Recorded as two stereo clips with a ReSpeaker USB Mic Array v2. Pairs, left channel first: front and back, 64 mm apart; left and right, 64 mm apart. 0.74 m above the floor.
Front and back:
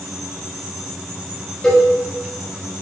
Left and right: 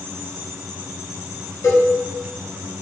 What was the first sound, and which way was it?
A cowbell, 75° left.